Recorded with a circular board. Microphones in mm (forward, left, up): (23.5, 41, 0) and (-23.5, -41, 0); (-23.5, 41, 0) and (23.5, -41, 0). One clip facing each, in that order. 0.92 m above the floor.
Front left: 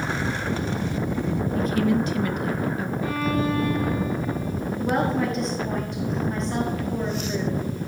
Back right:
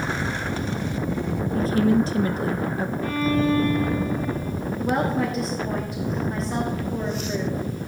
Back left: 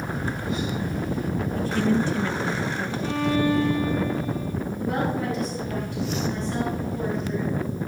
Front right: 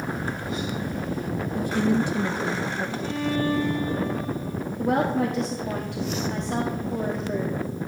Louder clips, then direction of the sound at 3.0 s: Back right 3 dB, back left 4 dB; 145° left.